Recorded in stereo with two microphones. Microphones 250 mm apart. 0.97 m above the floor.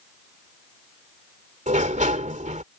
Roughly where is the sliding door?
Right.